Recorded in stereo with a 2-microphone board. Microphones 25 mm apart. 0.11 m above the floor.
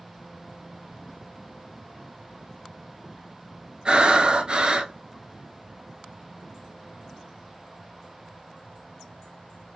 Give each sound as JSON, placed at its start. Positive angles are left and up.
{"t": 3.9, "sound": "breathing", "side_deg": -40, "distance_m": 0.7}